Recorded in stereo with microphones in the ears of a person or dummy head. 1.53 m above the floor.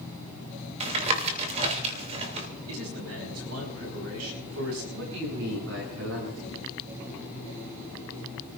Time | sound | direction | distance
0.8 | tapping | 35° right (ahead or behind) | 2.5 m
2.7 | a man speaking | 85° right | 5.5 m
4.9 | a man speaking | 75° right (ahead or behind) | 7 m